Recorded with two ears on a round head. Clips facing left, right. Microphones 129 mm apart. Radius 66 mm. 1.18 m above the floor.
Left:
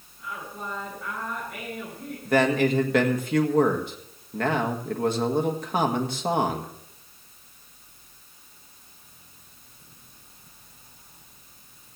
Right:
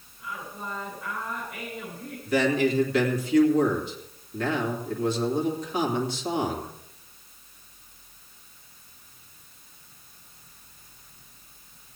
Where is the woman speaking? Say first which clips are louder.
Left 1 dB; 60° left (ahead or behind), 9.5 m.